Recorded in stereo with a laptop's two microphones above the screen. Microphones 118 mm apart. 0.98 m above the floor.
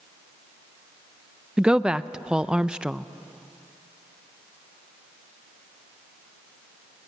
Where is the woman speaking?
5° right (ahead or behind), 0.6 m.